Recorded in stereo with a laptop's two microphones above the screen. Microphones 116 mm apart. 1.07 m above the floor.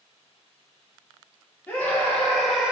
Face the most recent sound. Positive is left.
turn(degrees=-10)  # may be behind; listen again after turning